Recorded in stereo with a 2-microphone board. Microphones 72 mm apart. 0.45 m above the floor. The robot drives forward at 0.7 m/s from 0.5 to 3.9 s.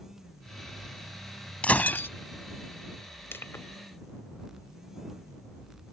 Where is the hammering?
I don't hear hammering.